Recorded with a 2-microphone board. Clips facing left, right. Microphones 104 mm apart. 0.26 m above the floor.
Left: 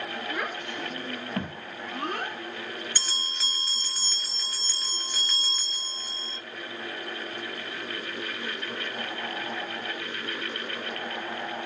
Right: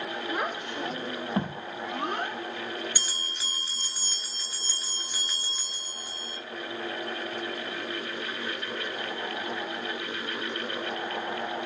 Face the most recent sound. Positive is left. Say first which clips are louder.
# left 1 dB
turn(degrees=-15)  # may be behind; listen again after turning